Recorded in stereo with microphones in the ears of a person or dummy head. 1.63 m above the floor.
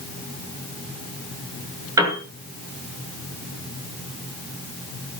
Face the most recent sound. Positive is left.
turn(degrees=-20)  # may be behind; listen again after turning